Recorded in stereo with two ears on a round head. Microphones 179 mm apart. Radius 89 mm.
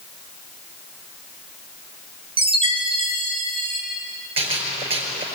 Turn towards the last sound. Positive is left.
turn(degrees=-30)  # may be behind; listen again after turning